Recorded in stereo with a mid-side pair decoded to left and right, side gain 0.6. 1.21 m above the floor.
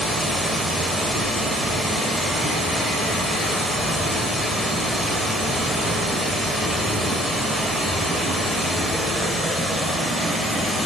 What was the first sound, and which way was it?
Running water, 5° right.